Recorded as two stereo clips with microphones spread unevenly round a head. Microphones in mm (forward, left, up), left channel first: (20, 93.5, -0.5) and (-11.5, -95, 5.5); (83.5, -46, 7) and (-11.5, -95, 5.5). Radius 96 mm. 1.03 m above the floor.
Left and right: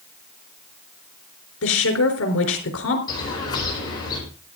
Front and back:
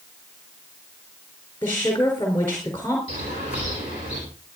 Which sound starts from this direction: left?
A woman speaking, at 1.6 s.